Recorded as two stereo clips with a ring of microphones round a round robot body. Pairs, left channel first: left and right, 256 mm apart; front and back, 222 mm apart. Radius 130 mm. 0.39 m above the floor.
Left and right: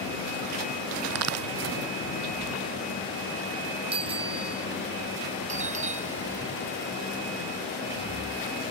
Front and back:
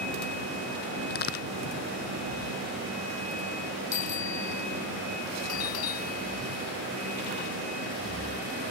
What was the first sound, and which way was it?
A crack, 55° right.